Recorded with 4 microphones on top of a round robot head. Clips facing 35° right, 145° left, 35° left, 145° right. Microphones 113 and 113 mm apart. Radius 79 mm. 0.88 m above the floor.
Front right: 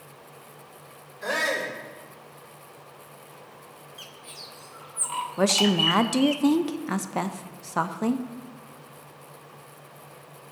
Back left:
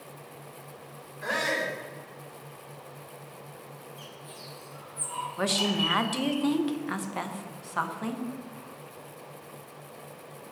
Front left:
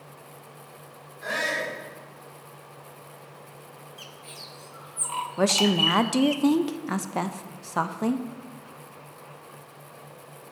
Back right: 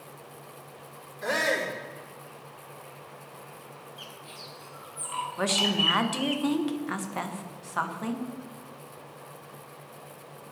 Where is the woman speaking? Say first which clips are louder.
Front right 6 dB, front left 6 dB; straight ahead, 0.7 m.